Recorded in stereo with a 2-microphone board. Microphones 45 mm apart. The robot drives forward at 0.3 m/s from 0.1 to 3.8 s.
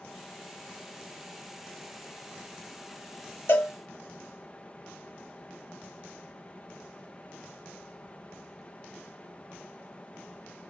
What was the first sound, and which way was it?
A cowbell, 45° left (ahead or behind).